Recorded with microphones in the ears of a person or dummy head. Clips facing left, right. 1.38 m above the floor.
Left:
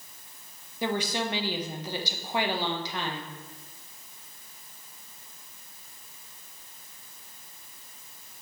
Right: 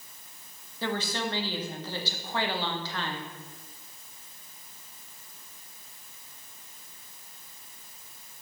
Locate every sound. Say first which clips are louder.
0.8 s a woman speaking: left 2 dB; 15° left (ahead or behind), 1.1 m